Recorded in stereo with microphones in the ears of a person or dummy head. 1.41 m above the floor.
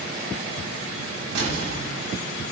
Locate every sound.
1.4 s an explosion: 65° right (ahead or behind), 2.5 m